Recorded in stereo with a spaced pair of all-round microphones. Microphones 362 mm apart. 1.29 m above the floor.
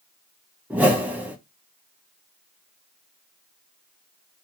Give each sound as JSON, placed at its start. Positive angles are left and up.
{"t": 0.7, "sound": "a whoosh", "side_deg": -5, "distance_m": 0.8}